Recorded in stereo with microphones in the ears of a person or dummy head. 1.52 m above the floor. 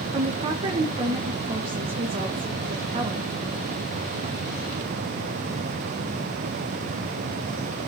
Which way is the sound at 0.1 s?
30° right (ahead or behind).